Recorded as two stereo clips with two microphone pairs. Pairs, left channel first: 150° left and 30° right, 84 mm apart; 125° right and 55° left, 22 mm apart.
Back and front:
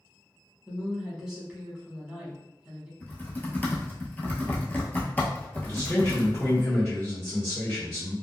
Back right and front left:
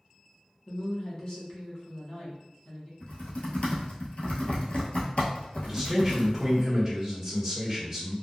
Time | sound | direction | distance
0.7 | a woman speaking | 105° right | 1.1 m
3.0 | typing on a keyboard | 145° right | 0.8 m
5.6 | a man speaking | 145° left | 1.4 m